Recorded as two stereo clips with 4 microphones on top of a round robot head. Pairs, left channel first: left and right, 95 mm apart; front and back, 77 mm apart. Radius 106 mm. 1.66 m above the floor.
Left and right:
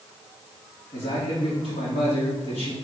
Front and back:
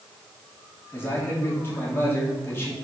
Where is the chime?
I don't hear a chime.